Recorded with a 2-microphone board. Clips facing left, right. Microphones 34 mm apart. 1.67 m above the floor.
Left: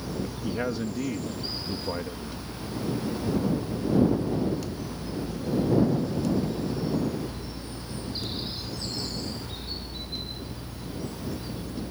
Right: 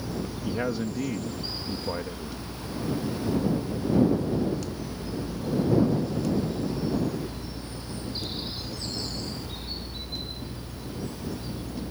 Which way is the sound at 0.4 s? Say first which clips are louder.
Right 1 dB; centre (ahead or behind).